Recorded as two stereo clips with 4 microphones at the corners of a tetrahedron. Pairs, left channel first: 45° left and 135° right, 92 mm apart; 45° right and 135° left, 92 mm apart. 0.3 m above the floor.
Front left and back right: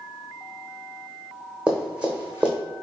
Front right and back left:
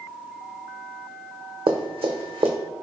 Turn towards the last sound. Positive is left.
turn(degrees=145)